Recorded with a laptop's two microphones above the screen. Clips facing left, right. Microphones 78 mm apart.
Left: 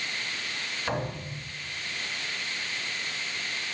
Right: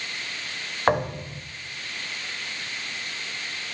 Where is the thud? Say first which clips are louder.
Right 10 dB; 60° right (ahead or behind), 1.0 m.